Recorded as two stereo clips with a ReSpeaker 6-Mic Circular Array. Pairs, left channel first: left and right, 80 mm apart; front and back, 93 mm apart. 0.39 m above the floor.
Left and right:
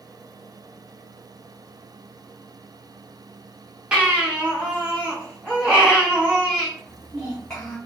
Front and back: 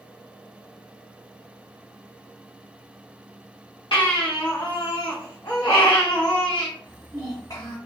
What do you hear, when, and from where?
3.9 s a baby crying: 15° right, 1.8 m
6.8 s a child speaking: 15° left, 1.2 m